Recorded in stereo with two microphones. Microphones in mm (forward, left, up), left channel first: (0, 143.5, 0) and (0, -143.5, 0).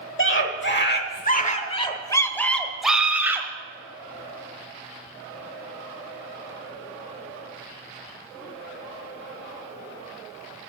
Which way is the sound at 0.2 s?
45° left (ahead or behind).